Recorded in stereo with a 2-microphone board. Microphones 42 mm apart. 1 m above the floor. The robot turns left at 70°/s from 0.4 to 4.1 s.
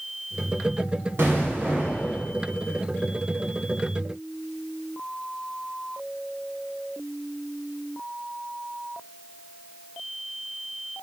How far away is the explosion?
About 1.5 m.